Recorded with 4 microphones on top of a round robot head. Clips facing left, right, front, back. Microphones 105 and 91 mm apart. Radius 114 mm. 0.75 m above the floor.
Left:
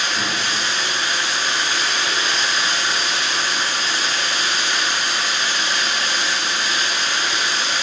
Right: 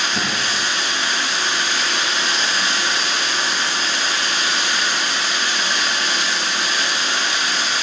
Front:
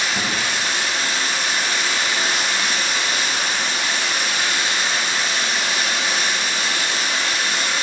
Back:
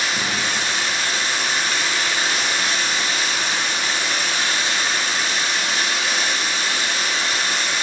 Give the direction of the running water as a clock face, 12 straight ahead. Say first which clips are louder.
Right 1 dB, even; 1 o'clock.